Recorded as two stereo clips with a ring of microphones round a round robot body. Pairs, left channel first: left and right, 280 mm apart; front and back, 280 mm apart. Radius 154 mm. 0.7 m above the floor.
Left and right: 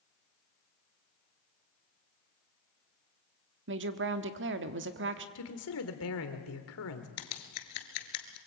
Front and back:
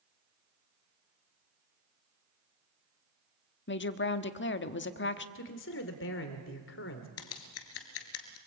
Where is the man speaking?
50° left, 2.5 m.